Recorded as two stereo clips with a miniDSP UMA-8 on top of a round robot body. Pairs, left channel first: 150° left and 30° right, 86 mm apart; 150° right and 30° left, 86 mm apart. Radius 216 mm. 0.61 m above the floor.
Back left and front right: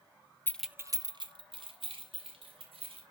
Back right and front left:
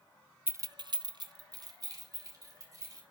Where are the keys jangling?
90° left, 0.5 m; by 3.0 s 20° right, 2.5 m.